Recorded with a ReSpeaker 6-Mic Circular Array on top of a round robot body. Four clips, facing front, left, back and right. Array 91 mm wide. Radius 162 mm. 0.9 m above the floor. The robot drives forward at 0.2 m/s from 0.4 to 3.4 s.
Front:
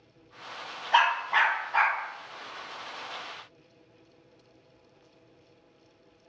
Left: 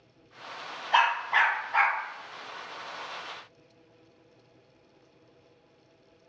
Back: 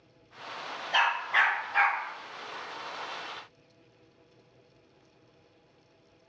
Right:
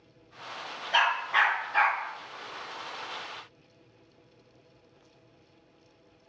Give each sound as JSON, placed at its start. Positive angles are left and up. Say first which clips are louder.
{"t": 0.9, "sound": "a dog barking", "louder": "left 2 dB, front 4 dB", "azimuth_deg": 50, "distance_m": 1.6}